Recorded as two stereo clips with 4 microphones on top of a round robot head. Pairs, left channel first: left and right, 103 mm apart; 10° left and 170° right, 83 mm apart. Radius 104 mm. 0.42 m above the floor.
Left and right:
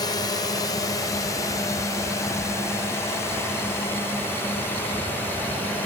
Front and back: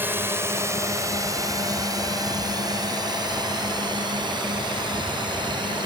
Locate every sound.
0.0 s a drone: 130° left; by 5.9 s 165° left